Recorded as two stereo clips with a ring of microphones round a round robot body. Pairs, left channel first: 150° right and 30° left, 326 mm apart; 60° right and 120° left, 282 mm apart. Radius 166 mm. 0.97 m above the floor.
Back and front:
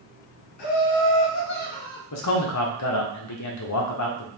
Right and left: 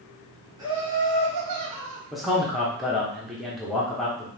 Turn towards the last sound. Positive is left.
turn(degrees=-150)